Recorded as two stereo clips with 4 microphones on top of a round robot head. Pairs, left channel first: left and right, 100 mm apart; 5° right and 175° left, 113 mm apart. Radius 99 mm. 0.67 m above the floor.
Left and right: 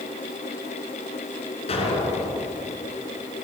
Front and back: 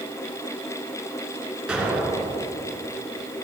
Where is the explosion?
95° left, 3.5 m.